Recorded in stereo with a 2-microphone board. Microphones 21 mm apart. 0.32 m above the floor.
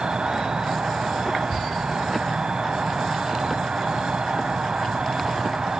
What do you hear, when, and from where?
0.0 s an insect: 50° right (ahead or behind), 1.3 m